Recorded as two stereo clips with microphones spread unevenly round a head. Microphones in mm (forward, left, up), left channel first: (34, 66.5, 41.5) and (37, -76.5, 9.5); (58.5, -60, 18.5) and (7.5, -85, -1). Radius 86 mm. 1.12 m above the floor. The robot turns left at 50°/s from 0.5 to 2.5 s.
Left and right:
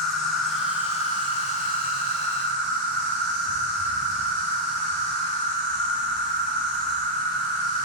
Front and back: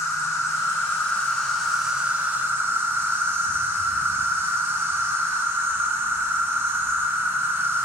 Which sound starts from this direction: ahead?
An insect, at 0.0 s.